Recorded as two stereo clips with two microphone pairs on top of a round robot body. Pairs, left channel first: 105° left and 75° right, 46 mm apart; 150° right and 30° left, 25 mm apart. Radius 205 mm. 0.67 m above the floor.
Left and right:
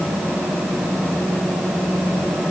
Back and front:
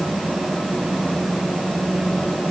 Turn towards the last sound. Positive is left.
No sound to turn to.